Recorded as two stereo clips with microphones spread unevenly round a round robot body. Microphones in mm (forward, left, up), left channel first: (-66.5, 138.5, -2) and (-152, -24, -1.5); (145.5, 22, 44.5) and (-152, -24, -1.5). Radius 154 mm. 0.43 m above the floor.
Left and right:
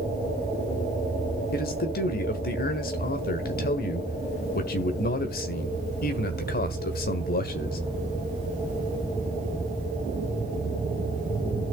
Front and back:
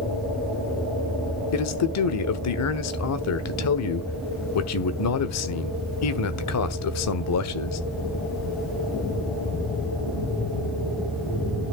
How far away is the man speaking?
About 1.4 m.